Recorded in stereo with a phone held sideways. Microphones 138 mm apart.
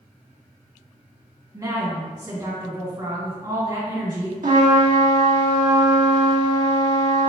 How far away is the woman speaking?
About 1.8 m.